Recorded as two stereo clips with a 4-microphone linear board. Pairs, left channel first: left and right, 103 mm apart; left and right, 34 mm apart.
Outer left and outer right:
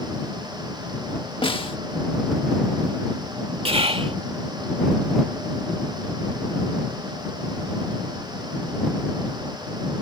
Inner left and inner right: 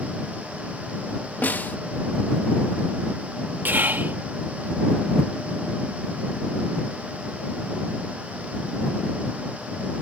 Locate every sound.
1.4 s a snare drum: 60° left (ahead or behind)
3.6 s whispering: 70° right (ahead or behind)